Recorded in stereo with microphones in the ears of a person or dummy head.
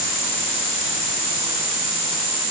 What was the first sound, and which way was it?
Only background noise.